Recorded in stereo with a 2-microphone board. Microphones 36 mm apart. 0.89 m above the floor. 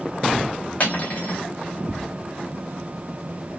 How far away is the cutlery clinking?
About 0.7 m.